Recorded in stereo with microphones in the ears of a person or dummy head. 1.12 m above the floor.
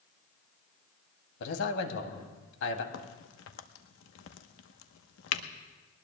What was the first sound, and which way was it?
A man speaking, 70° left (ahead or behind).